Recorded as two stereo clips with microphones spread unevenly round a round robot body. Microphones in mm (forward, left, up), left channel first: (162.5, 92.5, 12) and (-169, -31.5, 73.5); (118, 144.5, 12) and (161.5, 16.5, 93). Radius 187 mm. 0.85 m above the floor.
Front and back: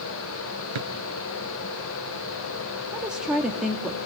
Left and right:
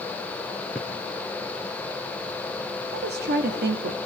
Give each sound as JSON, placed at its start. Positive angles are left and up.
{"t": 0.8, "sound": "a drawer", "azimuth_deg": -155, "distance_m": 3.5}
{"t": 2.9, "sound": "a woman speaking", "azimuth_deg": -70, "distance_m": 1.8}